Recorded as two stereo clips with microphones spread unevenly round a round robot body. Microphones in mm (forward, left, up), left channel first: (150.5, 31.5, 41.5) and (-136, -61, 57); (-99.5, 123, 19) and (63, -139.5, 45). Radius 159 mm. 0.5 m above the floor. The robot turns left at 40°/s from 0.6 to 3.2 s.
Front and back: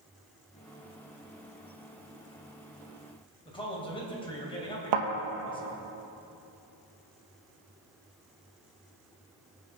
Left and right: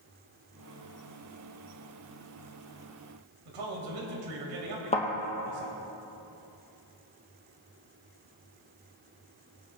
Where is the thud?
165° right, 2.5 m.